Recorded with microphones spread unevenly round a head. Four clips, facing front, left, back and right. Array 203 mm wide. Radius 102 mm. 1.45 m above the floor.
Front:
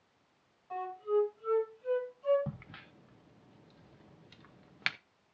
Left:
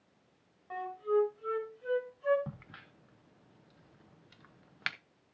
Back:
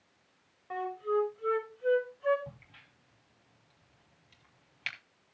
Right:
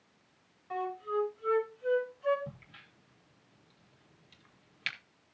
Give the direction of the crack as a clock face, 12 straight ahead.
12 o'clock.